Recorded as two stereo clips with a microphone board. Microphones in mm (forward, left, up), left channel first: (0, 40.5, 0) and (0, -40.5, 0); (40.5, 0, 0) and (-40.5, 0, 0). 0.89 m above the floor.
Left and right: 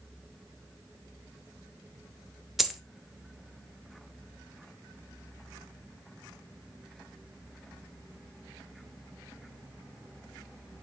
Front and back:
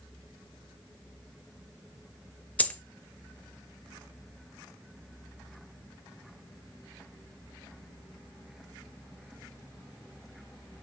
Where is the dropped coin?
Straight ahead, 0.6 m.